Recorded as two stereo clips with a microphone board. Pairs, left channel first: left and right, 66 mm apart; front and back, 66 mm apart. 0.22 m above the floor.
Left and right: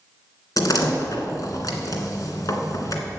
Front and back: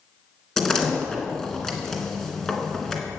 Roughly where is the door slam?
Left.